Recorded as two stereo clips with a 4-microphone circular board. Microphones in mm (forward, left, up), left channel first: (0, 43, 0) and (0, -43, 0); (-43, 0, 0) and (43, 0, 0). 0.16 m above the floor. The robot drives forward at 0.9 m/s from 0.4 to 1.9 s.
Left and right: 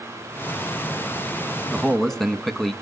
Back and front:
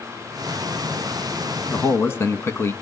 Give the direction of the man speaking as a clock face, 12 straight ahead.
6 o'clock.